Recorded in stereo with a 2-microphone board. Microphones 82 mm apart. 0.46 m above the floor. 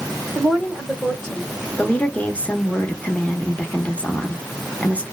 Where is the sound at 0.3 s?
10° right (ahead or behind), 1.0 m; by 1.5 s 30° left (ahead or behind), 1.3 m.